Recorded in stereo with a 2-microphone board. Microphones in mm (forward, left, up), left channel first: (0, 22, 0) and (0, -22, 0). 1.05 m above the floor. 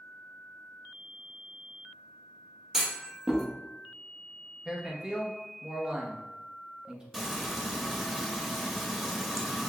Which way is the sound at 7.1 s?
5° right (ahead or behind).